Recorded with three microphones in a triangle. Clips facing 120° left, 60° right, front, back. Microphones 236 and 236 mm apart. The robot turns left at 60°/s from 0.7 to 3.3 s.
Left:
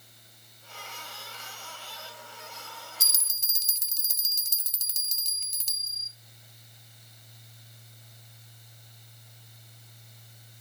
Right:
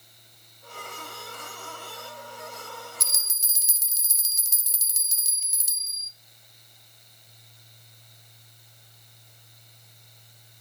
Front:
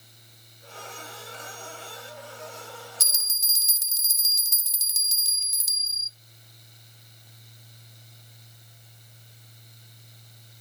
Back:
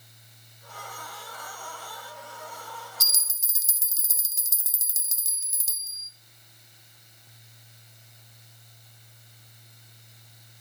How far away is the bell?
About 0.5 m.